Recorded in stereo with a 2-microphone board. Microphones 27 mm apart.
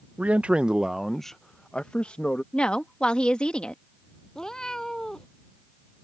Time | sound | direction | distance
0.2 | a man speaking | 60° right (ahead or behind) | ?
2.5 | a woman speaking | 40° left (ahead or behind) | ?
4.3 | a cat meowing | 25° left (ahead or behind) | ?